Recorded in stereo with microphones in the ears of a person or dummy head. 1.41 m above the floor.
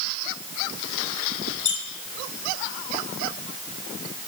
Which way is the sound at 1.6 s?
85° left.